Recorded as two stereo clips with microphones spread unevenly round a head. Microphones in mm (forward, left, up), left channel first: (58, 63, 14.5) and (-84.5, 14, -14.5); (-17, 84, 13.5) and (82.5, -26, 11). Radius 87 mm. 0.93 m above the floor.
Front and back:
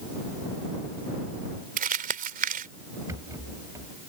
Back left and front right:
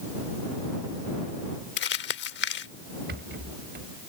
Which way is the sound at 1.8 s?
165° left.